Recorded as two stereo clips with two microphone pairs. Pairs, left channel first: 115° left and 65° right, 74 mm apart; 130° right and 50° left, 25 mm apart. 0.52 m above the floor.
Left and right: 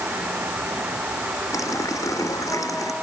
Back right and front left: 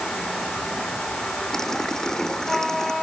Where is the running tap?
160° left.